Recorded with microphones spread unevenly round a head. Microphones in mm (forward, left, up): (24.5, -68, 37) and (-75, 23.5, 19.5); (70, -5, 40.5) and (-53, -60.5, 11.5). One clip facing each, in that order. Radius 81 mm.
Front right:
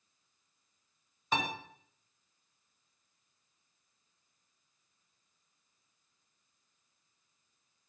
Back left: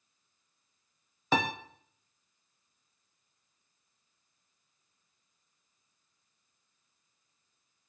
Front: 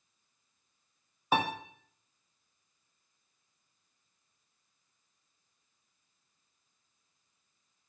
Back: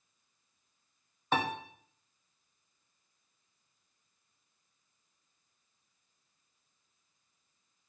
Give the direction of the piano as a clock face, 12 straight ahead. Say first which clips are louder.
Back left 5 dB, front 2 dB; 9 o'clock.